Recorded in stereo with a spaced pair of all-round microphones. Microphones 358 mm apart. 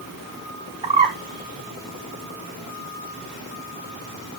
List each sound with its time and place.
0.8 s a bird: 15° right (ahead or behind), 1.2 m